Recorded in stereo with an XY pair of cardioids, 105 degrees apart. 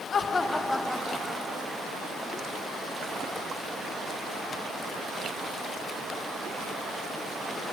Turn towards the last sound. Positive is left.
turn(degrees=-25)